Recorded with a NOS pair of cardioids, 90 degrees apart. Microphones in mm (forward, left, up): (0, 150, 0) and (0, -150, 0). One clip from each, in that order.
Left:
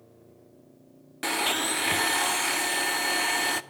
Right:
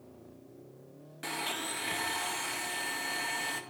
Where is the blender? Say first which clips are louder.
Left 9 dB; 45° left, 0.6 m.